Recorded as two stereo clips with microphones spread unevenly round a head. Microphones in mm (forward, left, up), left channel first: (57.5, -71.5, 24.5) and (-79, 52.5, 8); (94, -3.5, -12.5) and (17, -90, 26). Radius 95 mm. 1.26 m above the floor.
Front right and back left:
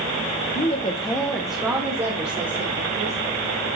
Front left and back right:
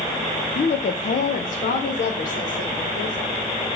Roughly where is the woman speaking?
Ahead.